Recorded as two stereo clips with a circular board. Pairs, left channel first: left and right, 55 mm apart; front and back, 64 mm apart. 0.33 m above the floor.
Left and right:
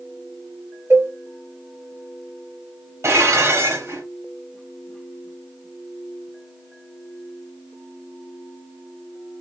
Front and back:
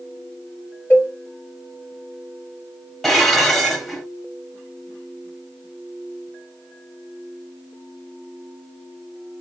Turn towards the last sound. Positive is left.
turn(degrees=-85)